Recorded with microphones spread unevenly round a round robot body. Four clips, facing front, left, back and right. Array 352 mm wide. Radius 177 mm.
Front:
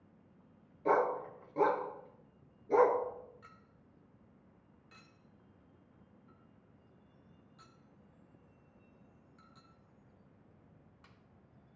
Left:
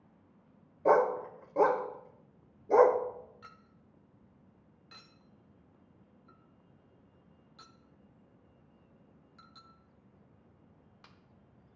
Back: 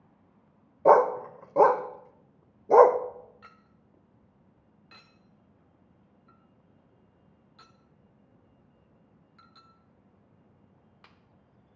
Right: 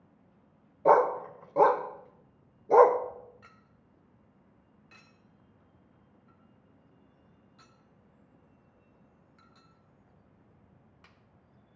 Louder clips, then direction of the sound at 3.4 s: Left 3 dB, back 4 dB; 175° left.